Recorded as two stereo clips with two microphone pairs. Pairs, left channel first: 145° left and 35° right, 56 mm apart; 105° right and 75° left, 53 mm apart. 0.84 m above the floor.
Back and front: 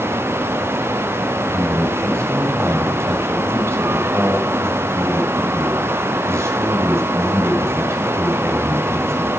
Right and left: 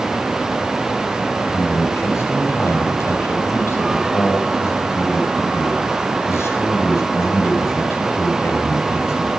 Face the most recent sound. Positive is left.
turn(degrees=-70)